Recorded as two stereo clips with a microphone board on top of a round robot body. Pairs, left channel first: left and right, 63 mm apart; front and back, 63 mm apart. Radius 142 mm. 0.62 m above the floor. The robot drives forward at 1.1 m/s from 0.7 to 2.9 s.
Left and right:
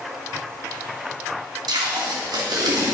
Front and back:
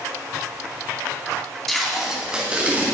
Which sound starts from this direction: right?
Tape being pulled, at 1.7 s.